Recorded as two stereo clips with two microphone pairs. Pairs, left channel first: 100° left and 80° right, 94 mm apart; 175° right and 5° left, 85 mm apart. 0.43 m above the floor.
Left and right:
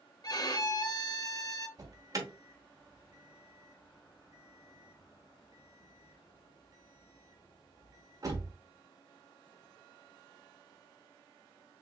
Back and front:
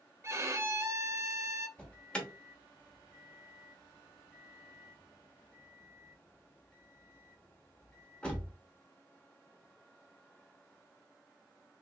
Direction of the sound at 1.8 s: 105° right.